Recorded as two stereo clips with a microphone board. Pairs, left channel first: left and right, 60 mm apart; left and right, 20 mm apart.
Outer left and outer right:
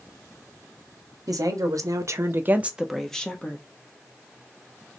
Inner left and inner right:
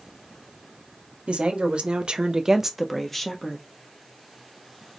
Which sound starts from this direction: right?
A woman speaking, at 1.3 s.